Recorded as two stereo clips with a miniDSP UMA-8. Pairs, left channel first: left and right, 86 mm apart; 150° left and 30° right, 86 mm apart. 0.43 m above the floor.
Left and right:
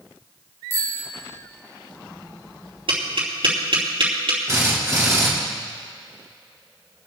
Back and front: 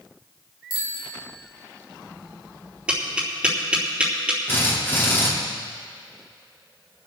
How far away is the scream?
No scream in this recording.